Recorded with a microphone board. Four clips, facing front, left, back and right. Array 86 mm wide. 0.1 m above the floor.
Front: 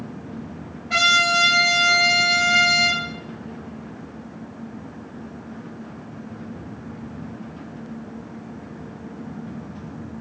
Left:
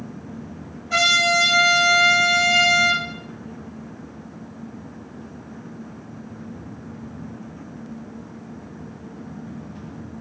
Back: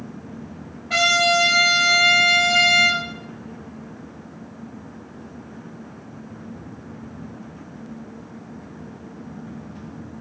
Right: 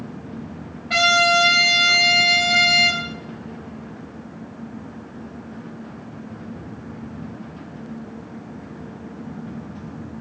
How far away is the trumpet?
About 1.4 m.